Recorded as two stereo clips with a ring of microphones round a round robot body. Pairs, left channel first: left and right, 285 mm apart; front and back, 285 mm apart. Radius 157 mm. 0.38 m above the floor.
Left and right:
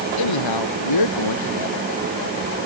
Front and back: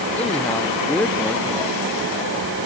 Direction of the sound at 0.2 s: 85° left.